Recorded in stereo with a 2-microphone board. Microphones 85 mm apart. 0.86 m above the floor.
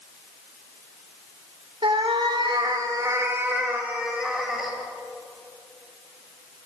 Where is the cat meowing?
85° right, 1.3 m; by 4.7 s centre (ahead or behind), 2.5 m.